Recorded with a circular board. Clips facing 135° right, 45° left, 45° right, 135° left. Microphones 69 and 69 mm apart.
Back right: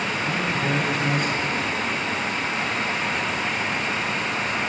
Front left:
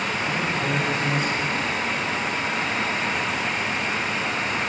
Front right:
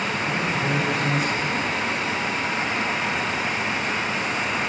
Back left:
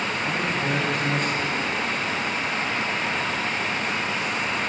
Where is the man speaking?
130° right, 3 m.